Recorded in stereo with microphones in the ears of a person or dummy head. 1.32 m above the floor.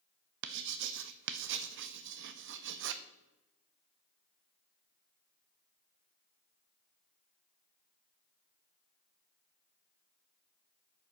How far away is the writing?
About 0.6 m.